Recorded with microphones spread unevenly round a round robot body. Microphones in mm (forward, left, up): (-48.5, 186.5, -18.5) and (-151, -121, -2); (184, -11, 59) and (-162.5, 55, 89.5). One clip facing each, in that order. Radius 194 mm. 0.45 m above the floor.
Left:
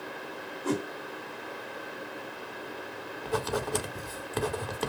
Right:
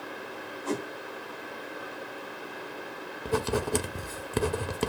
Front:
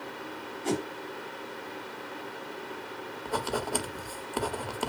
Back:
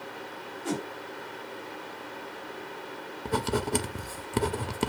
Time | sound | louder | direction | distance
0.6 | a whoosh | left 2 dB, front 2 dB | 5° left | 3.5 m
3.2 | writing | right 3 dB, back 4 dB | 145° right | 0.9 m